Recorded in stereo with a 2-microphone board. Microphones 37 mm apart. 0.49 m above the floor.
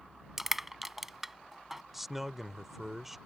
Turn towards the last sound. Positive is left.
turn(degrees=-5)  # may be behind; listen again after turning